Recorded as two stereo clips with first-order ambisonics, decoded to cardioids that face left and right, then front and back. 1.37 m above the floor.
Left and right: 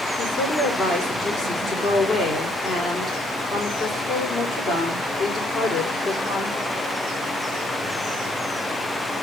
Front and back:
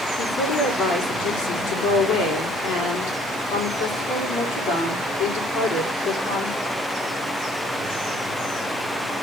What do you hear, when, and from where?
0.2 s a woman speaking: 10° left, 4 m